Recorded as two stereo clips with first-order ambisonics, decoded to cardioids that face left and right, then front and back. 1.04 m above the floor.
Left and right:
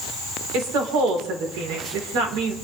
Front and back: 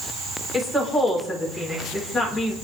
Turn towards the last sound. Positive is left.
turn(degrees=-90)